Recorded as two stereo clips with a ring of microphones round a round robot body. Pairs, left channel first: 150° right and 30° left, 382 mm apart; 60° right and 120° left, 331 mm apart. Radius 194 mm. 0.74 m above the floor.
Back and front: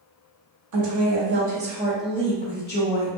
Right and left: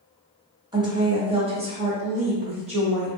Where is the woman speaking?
45° left, 1.0 m; by 3.2 s 175° right, 1.0 m.